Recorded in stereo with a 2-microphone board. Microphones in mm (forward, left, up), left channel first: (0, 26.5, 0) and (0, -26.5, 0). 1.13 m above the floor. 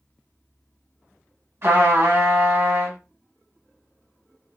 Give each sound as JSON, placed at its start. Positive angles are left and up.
{"t": 1.6, "sound": "a trumpet", "side_deg": -55, "distance_m": 1.1}